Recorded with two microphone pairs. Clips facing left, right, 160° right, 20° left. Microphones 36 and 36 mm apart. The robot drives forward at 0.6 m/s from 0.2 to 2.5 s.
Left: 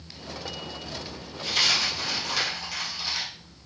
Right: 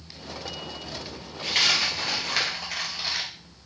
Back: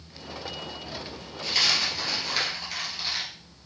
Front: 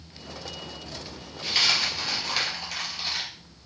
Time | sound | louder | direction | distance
1.4 | a dropped coin | right 1 dB, front 1 dB | 60° right | 1.9 m